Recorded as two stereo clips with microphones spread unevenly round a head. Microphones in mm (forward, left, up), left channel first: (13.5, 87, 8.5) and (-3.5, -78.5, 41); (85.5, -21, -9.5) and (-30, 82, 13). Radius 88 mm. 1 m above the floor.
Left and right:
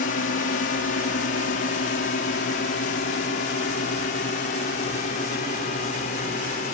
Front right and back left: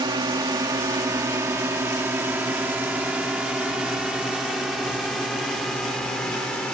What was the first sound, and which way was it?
A drone, 80° left.